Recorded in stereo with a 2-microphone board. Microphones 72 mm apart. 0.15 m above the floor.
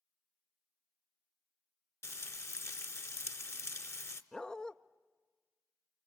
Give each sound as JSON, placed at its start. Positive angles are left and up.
{"t": 2.0, "sound": "frying", "side_deg": 40, "distance_m": 0.8}
{"t": 4.3, "sound": "a dog barking", "side_deg": 10, "distance_m": 0.5}